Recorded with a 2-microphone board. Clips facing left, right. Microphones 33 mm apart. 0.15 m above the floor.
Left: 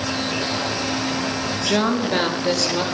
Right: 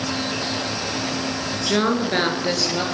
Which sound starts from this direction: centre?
A woman speaking, at 1.7 s.